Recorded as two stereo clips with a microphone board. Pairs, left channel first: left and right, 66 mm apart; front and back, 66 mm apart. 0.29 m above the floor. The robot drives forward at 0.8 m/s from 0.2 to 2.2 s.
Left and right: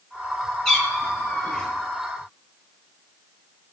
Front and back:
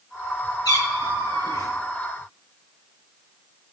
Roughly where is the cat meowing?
Ahead.